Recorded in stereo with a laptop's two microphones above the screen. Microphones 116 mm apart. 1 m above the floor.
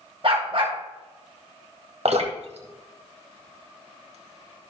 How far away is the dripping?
About 1.6 m.